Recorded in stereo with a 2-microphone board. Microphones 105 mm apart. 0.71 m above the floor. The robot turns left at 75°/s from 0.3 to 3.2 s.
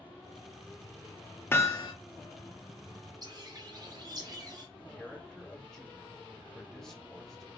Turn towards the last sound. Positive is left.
turn(degrees=5)  # may be behind; listen again after turning